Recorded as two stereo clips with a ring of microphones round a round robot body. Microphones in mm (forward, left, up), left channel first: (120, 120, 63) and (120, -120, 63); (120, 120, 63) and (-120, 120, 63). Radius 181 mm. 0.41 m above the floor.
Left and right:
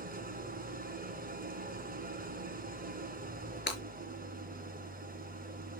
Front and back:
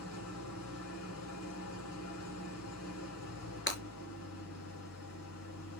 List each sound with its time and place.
0.0 s an engine running: 35° right, 2.5 m
3.7 s breaking glass: 40° left, 4.5 m